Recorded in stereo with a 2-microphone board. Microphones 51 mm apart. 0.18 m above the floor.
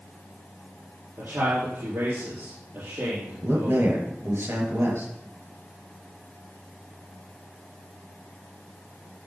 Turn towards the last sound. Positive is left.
turn(degrees=-65)  # may be behind; listen again after turning